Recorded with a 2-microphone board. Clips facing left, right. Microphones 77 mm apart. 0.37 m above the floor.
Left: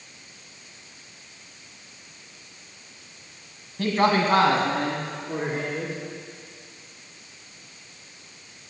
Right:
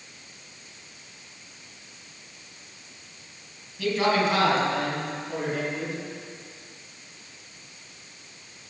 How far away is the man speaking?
About 3 m.